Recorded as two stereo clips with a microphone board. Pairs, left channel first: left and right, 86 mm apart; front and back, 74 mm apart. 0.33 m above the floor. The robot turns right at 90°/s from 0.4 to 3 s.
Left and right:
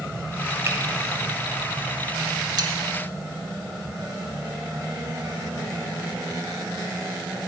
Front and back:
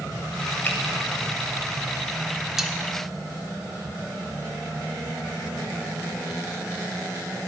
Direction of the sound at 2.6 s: 95° right.